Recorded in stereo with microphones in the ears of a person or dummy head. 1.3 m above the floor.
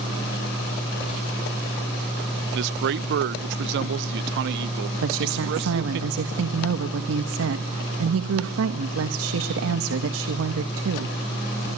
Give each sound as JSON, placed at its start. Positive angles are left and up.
{"t": 2.5, "sound": "a man speaking", "side_deg": -60, "distance_m": 0.6}
{"t": 5.0, "sound": "a woman speaking", "side_deg": -75, "distance_m": 1.3}